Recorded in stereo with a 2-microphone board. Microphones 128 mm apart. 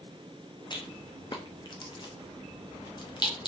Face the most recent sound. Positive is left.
turn(degrees=35)  # may be behind; listen again after turning